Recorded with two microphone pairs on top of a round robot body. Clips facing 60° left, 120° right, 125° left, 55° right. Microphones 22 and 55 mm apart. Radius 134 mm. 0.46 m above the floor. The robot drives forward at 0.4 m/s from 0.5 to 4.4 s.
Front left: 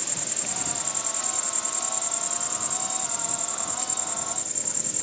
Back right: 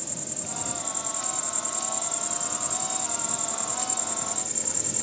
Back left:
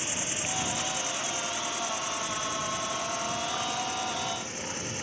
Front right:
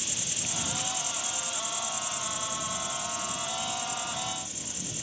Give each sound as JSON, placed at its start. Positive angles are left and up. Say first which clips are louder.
{"t": 0.0, "sound": "an insect", "louder": "front left 4 dB, back left 5 dB", "azimuth_deg": 100}